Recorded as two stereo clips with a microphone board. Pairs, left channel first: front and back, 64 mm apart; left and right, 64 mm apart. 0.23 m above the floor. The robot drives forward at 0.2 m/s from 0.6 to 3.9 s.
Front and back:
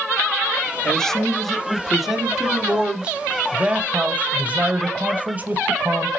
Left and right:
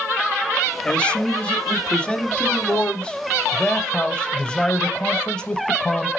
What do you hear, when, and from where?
0.8 s a man speaking: 60° left, 0.9 m; by 6.1 s 145° left, 1.0 m